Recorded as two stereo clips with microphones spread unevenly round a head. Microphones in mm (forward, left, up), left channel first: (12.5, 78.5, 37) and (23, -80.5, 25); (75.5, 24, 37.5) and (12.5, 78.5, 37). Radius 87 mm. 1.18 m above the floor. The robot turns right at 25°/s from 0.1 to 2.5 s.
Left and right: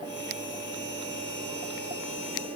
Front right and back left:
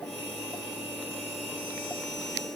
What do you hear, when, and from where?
Only background noise.